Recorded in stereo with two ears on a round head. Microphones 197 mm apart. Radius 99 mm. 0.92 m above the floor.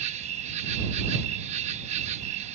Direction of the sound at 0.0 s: 30° right (ahead or behind).